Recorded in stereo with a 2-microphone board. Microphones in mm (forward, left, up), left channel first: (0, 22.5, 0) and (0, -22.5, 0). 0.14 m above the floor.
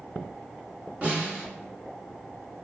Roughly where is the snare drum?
Right.